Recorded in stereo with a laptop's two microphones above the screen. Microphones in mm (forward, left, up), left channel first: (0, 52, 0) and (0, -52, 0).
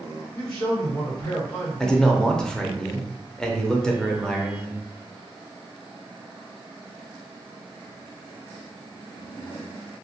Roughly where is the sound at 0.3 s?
Left.